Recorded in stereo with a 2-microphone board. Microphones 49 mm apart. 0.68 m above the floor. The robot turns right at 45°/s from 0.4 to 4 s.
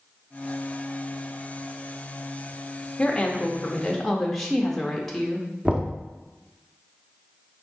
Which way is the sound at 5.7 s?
25° right (ahead or behind).